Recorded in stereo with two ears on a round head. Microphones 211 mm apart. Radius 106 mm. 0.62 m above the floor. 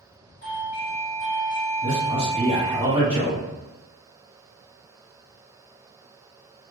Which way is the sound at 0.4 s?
25° left (ahead or behind).